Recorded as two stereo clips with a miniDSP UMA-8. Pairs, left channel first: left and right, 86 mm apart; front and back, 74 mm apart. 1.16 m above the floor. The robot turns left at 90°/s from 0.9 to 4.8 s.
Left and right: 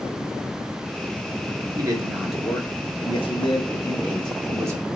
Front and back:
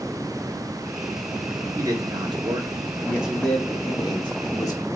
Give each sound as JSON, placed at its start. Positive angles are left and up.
{"t": 1.8, "sound": "a man speaking", "azimuth_deg": -130, "distance_m": 2.5}